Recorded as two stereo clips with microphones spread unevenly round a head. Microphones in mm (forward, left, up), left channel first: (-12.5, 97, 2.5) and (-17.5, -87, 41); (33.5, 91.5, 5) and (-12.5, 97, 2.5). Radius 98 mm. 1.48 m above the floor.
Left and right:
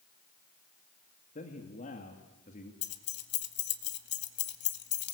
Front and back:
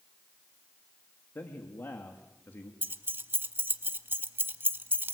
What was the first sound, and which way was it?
A man speaking, 30° left.